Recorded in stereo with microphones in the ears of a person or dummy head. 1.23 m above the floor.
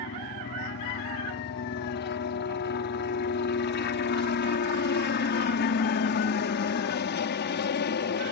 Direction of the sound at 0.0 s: 55° left (ahead or behind).